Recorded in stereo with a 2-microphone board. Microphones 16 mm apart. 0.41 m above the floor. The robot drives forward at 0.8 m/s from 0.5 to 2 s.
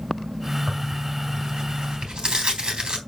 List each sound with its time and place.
0.7 s tearing paper: 65° right (ahead or behind), 3.5 m